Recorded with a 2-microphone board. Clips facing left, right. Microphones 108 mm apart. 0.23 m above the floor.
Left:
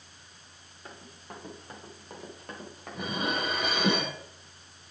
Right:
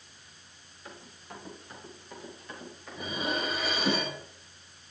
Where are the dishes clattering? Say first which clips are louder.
Left 1 dB; 60° left (ahead or behind), 2.5 m.